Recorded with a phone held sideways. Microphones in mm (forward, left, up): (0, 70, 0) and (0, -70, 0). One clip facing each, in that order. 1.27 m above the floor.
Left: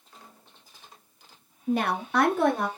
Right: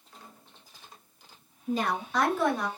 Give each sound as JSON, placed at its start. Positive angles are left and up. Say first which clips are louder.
{"t": 1.7, "sound": "a woman speaking", "louder": "left 3 dB", "side_deg": 55, "distance_m": 0.7}